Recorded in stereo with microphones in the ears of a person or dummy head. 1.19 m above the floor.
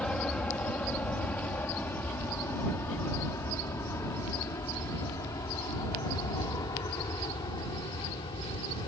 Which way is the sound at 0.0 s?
10° left (ahead or behind).